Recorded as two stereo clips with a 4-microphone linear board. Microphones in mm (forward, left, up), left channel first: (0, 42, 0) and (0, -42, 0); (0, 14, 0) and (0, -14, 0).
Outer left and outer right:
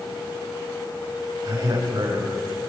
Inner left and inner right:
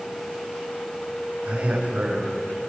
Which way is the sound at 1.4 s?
40° right (ahead or behind).